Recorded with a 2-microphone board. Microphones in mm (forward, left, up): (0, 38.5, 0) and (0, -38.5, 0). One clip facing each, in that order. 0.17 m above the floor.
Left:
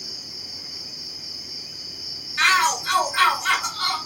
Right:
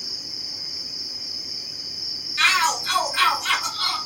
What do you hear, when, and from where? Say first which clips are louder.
0.0 s an insect: right 1 dB; 10° right (ahead or behind), 1.2 m
2.4 s a shout: left 2 dB; 15° left (ahead or behind), 1.5 m